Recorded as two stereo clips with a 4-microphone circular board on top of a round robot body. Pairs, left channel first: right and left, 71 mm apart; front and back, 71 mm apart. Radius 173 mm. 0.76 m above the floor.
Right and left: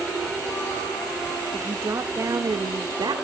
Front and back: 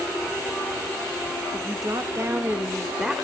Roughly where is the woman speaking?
Behind left.